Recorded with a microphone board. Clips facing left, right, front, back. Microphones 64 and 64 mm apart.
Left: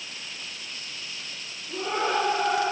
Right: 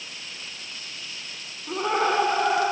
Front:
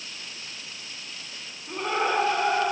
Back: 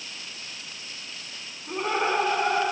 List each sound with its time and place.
1.7 s laughter: 100° right, 6 m